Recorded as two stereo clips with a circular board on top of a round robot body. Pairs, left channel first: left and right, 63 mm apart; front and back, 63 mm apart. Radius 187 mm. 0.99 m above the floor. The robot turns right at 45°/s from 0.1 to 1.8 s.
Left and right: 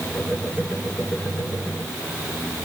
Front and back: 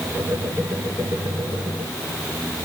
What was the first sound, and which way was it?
Only background noise.